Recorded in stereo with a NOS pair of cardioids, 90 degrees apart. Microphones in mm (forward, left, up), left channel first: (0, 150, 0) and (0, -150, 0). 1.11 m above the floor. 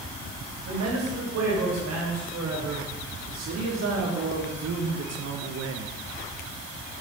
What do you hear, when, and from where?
0.7 s a man speaking: 60° right, 7 m; by 5.9 s 65° right, 1.1 m